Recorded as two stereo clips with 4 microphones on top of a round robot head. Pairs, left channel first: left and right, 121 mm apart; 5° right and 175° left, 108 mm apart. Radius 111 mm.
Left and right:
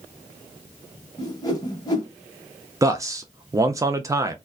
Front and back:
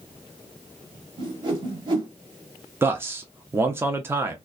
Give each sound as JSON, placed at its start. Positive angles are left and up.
{"t": 1.2, "sound": "a whoosh", "azimuth_deg": 140, "distance_m": 0.7}
{"t": 2.8, "sound": "a man speaking", "azimuth_deg": -130, "distance_m": 0.5}